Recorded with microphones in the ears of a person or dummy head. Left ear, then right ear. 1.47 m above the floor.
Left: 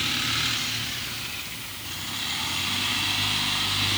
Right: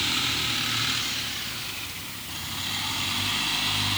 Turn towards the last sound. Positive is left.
No sound to turn to.